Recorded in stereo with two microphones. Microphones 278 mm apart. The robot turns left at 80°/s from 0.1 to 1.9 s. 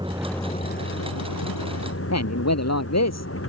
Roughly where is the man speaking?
Left.